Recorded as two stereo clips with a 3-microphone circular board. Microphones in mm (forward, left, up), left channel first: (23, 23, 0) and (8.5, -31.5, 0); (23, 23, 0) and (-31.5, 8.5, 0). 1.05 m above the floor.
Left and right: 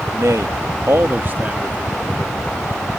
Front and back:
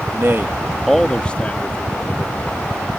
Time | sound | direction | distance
0.1 | a man speaking | 130° right | ?